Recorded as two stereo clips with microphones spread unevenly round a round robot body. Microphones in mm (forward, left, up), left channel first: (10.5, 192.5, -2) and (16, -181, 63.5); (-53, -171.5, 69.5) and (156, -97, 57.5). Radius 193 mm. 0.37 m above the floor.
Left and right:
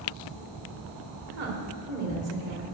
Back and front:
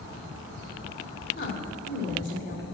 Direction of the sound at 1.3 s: 155° right.